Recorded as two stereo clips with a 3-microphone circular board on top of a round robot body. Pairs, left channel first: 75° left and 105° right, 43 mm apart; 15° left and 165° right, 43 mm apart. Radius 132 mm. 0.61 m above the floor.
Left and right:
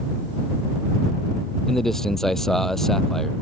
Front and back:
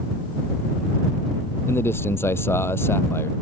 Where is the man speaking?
5° right.